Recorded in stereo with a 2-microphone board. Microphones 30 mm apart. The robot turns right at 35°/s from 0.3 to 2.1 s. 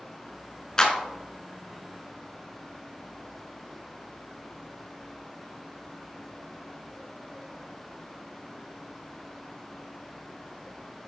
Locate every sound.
0.8 s a clap: 25° left (ahead or behind), 1.0 m